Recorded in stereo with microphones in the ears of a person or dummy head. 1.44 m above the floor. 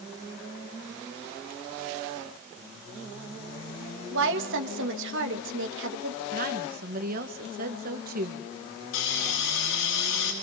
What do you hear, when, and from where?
4.1 s a woman speaking: 75° right (ahead or behind), 2.5 m
6.3 s a woman speaking: 45° right (ahead or behind), 2 m
8.9 s a hiss: 75° left (ahead or behind), 9 m